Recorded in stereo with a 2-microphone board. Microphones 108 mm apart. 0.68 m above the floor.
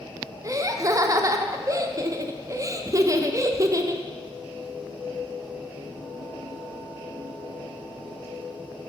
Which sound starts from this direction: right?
Laughter, at 0.4 s.